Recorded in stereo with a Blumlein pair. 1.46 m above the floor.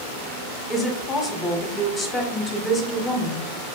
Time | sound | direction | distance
0.7 | a woman speaking | 15° left | 0.7 m